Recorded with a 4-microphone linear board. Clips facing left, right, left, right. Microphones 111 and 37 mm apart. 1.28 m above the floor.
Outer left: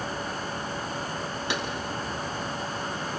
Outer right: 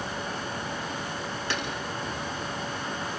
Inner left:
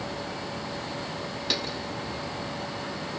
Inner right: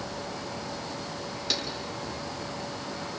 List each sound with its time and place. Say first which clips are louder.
1.5 s a clap: outer left 2 dB, inner left 2 dB; 15° left (ahead or behind), 7 m